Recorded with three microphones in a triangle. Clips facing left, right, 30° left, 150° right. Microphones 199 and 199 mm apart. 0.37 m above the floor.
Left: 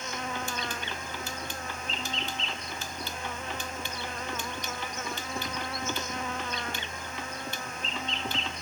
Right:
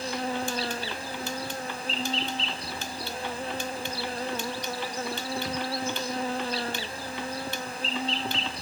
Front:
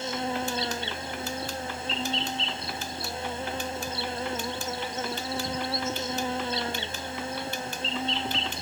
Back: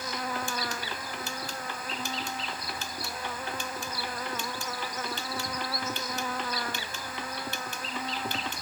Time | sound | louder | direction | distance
0.0 | an insect | right 6 dB, front 4 dB | 35° right | ?